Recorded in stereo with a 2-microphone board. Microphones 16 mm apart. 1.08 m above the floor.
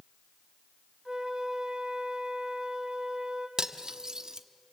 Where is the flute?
45° right (ahead or behind), 3.5 m.